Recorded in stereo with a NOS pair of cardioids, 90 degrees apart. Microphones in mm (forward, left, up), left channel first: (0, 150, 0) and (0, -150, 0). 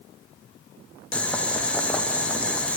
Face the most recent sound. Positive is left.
turn(degrees=5)